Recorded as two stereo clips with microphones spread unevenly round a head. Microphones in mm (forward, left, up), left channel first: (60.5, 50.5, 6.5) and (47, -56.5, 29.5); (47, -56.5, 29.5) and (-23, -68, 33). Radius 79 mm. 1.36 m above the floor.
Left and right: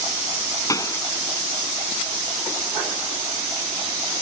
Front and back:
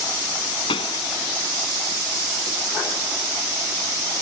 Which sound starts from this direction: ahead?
A pop, at 0.7 s.